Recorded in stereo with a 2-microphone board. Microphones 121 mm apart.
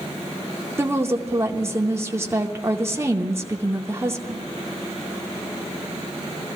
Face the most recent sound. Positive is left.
turn(degrees=-20)  # may be behind; listen again after turning